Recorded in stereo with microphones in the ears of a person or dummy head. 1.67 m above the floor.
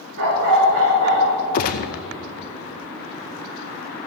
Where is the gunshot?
50° left (ahead or behind), 0.7 m.